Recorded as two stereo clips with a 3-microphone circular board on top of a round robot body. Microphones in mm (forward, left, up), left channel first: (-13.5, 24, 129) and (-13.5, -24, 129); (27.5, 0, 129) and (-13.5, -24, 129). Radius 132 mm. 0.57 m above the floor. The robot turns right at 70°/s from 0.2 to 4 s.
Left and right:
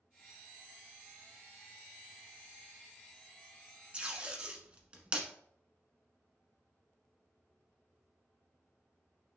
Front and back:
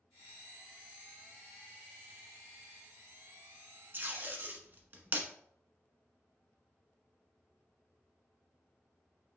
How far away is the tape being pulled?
About 1.5 m.